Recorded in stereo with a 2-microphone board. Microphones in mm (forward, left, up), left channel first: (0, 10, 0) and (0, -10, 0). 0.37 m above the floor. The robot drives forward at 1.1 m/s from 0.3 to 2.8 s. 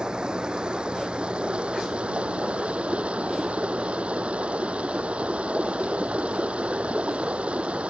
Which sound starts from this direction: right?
Running water, at 0.0 s.